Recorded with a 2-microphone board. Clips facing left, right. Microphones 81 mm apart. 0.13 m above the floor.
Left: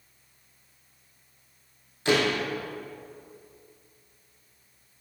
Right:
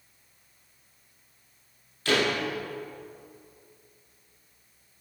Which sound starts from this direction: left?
A door slam, at 2.0 s.